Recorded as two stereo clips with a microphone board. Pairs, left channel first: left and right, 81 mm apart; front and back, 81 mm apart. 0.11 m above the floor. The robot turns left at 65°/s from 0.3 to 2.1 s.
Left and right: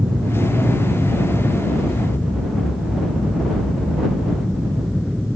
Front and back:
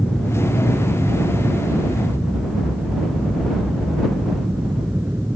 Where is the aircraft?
75° right; by 5.4 s 170° left.